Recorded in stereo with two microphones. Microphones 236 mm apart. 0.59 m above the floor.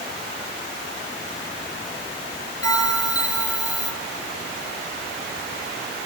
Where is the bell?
85° left, 5.5 m.